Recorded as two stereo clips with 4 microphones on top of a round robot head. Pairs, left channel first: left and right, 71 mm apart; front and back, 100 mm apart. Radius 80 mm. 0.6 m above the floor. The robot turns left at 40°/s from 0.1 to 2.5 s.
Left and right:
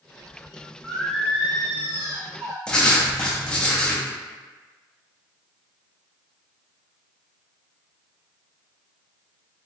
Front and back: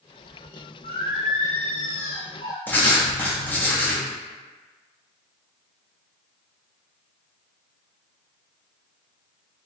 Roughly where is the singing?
Ahead.